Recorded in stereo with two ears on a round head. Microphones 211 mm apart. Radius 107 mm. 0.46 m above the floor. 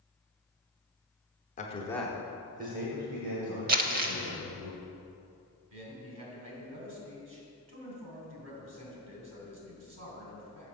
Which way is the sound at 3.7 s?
35° right (ahead or behind).